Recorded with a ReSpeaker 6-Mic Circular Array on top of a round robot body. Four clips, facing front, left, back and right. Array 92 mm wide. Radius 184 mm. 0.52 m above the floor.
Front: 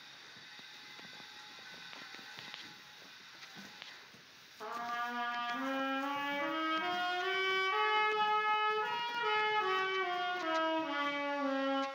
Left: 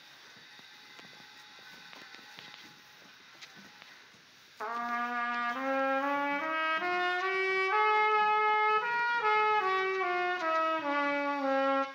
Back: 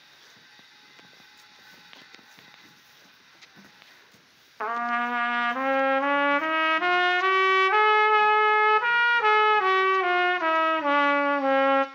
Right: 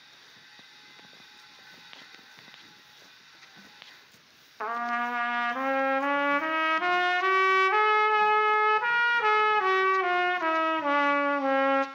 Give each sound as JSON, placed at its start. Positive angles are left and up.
{"t": 4.6, "sound": "a trumpet", "azimuth_deg": -160, "distance_m": 0.7}